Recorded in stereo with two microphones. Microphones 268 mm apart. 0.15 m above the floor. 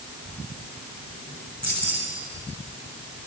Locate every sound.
1.6 s keys jangling: 75° left (ahead or behind), 8 m